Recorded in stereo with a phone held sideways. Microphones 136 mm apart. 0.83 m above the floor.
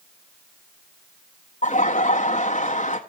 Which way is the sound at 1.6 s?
60° left (ahead or behind).